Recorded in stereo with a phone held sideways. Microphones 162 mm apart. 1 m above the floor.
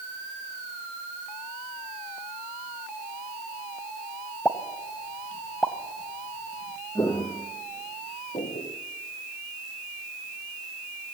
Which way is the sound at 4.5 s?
10° left (ahead or behind).